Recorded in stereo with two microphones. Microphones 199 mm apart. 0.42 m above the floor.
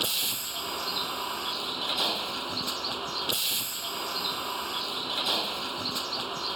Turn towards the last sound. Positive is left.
turn(degrees=0)  # may be behind; listen again after turning